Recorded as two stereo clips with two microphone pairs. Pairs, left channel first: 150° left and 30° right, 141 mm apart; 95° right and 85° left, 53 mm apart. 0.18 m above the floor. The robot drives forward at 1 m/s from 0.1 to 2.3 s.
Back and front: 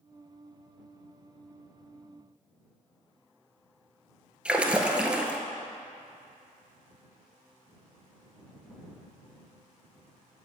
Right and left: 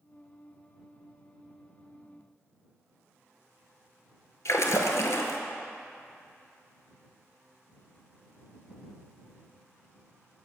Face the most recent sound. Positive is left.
turn(degrees=-110)